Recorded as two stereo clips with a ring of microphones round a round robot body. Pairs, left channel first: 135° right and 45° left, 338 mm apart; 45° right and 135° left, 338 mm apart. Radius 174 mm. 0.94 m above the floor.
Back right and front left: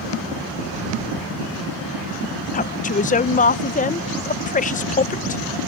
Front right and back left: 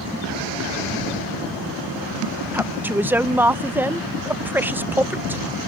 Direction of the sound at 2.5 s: 150° right.